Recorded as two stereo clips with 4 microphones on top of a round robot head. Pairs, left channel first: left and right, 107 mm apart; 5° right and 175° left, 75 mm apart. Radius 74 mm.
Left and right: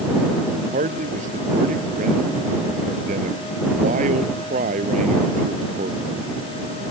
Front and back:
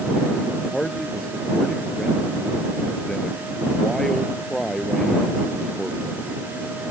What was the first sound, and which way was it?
A man speaking, 90° right.